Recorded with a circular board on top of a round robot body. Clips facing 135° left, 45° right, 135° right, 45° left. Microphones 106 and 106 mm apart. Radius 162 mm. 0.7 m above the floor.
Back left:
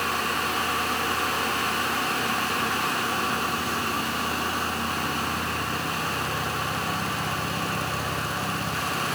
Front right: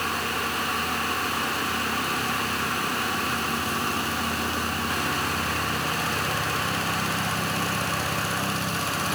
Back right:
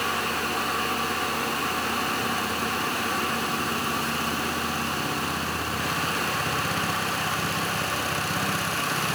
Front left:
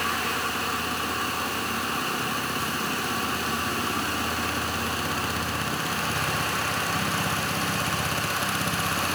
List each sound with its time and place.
Only background noise.